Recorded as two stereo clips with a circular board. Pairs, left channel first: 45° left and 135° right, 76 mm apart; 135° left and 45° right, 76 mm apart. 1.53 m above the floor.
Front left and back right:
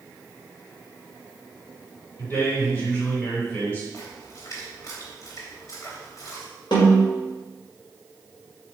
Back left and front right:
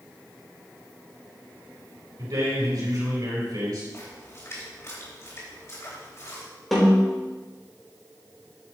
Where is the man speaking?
15° right, 4.5 m.